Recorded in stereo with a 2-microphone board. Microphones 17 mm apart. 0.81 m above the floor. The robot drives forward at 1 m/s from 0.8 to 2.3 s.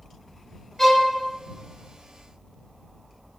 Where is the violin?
15° left (ahead or behind), 0.8 m; by 1.1 s 25° left (ahead or behind), 0.5 m.